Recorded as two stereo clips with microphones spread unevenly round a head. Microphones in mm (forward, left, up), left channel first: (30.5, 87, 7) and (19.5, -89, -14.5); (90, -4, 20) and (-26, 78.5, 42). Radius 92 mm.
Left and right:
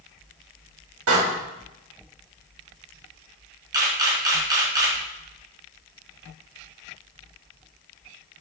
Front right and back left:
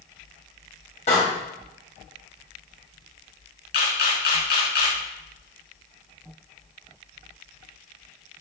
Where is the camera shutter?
20° right, 5.5 m.